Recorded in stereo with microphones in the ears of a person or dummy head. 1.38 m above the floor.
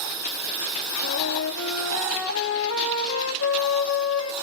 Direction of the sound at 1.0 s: 85° left.